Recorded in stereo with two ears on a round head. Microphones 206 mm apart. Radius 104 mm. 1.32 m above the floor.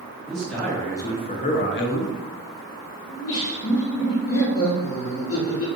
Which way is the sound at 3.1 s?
65° left (ahead or behind).